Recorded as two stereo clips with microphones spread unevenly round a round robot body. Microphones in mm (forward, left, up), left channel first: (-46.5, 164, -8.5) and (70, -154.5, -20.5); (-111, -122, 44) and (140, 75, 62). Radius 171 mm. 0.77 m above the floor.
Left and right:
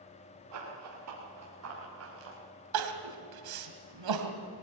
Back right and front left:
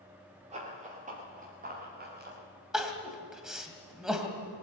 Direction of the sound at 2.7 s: 50° right.